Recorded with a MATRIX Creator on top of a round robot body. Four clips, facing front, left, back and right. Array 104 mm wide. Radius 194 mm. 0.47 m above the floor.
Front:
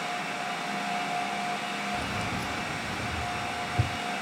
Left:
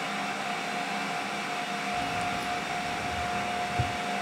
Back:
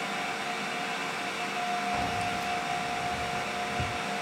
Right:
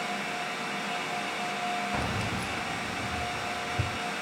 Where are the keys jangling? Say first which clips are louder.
Left 2 dB, back 2 dB; 105° right, 0.6 m; by 4.0 s 5° left, 1.9 m.